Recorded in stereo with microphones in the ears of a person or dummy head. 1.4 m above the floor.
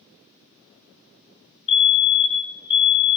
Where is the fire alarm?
30° left (ahead or behind), 1.4 m.